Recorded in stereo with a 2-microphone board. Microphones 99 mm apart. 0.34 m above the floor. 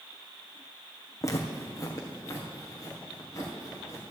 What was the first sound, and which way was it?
Footsteps, 35° left (ahead or behind).